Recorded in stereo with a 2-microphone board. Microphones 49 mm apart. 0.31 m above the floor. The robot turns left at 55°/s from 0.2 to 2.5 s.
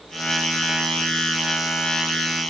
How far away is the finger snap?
I don't hear a finger snap.